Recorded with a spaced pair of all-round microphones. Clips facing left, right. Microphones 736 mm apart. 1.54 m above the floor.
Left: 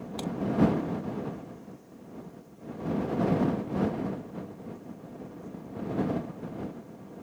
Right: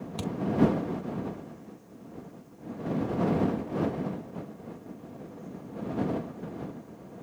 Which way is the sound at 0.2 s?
45° right (ahead or behind).